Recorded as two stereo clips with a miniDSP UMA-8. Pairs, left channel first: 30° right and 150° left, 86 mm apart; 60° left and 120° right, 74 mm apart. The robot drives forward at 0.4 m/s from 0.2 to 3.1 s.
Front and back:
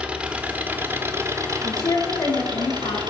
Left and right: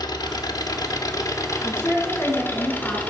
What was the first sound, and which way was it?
An engine running, 75° left.